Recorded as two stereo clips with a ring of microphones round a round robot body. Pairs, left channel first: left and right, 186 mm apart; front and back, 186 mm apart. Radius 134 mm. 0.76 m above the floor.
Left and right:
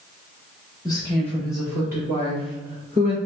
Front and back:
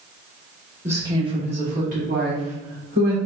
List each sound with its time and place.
0.8 s a woman speaking: 115° left, 1.0 m; by 3.2 s 150° right, 2 m